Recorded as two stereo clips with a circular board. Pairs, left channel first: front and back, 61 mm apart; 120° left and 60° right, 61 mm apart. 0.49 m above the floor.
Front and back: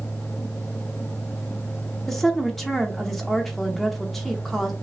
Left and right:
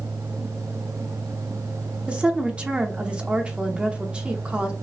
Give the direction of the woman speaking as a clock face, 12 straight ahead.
3 o'clock.